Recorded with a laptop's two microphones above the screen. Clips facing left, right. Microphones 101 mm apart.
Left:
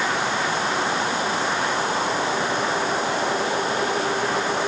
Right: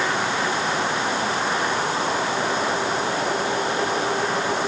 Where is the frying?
No frying in this recording.